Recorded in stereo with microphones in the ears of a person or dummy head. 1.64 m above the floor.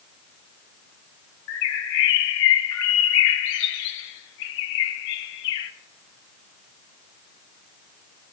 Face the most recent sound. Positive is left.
turn(degrees=70)  # may be behind; listen again after turning